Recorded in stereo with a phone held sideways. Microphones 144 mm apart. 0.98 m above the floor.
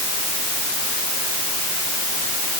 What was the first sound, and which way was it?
Only background noise.